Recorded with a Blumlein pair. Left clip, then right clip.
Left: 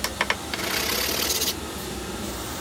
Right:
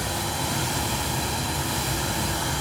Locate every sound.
0.0 s running water: 60° right, 3.5 m